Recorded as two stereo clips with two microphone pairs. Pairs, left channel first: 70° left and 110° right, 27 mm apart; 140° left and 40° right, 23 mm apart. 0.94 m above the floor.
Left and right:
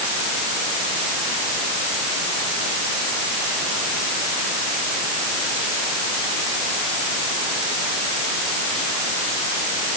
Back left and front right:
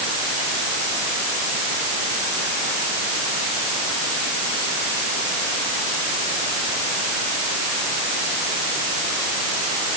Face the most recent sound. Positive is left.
No sound to turn to.